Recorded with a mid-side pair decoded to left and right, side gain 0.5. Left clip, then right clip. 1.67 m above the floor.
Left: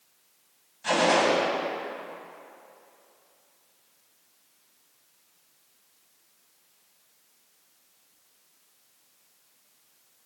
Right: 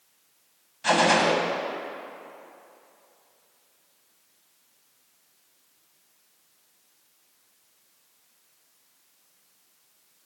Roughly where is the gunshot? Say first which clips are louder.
Right 2 dB; ahead right.